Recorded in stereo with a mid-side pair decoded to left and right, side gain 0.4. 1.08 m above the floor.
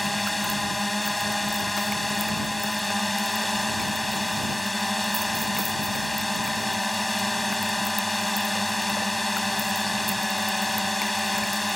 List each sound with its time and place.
0.0 s a drone: 5° left